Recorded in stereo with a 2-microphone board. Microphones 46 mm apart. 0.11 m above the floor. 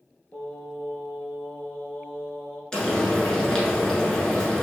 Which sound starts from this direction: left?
Singing, at 0.3 s.